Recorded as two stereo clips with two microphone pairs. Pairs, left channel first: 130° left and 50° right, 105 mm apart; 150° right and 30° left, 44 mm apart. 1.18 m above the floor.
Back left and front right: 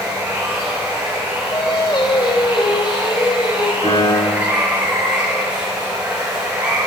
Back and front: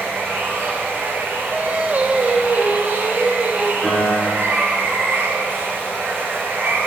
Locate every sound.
0.0 s running water: 25° left, 6.5 m
1.5 s singing: 85° left, 1.5 m
3.8 s a piano: 135° left, 6.5 m